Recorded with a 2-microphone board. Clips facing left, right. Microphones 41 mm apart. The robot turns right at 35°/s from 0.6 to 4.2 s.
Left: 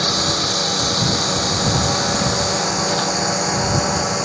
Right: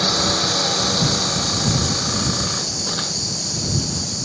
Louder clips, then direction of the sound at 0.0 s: Even; 5° left (ahead or behind).